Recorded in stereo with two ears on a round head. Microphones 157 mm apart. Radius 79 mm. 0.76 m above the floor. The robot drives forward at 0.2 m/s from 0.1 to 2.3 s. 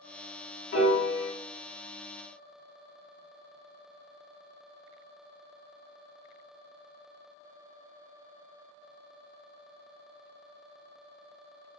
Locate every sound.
0.7 s a piano: 70° left (ahead or behind), 0.9 m; by 1.3 s 65° left (ahead or behind), 0.9 m